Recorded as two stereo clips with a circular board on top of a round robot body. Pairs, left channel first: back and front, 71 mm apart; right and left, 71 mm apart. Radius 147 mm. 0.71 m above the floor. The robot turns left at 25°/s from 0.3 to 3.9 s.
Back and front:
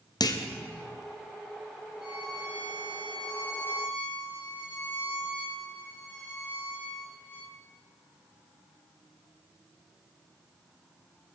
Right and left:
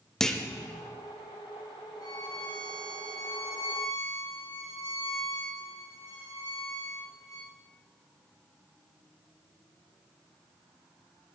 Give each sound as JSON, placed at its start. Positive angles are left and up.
{"t": 0.2, "sound": "a clunk", "azimuth_deg": -170, "distance_m": 1.1}
{"t": 2.0, "sound": "a violin", "azimuth_deg": -80, "distance_m": 4.5}